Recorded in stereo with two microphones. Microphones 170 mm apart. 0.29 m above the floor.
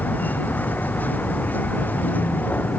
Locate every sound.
0.0 s a vehicle: 10° left (ahead or behind)